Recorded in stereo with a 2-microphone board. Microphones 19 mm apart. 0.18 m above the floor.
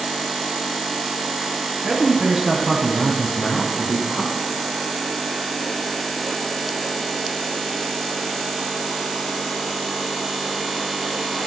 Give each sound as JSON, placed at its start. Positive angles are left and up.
{"t": 1.8, "sound": "a man speaking", "side_deg": -35, "distance_m": 1.9}